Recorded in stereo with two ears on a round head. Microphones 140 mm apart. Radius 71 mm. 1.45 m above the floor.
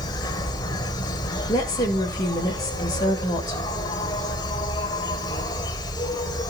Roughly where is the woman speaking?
Left.